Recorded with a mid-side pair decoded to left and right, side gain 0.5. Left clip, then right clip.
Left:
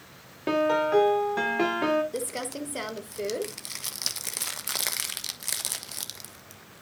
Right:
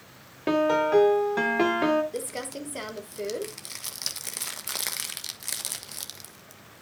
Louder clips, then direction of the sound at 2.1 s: Left 1 dB; 10° left.